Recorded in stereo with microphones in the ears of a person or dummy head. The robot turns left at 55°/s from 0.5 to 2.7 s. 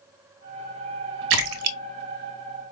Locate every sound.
1.3 s a splash: 70° right (ahead or behind), 0.5 m; by 1.8 s 80° right, 0.5 m